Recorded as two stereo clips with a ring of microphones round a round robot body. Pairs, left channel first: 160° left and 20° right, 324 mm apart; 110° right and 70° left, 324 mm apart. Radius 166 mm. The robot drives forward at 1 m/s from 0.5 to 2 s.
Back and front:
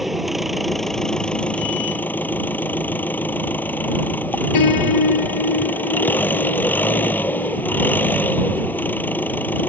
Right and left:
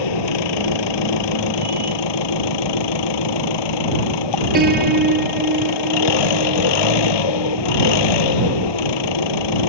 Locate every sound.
0.0 s an engine running: 110° right; by 9.7 s 120° right
4.5 s a piano: 130° left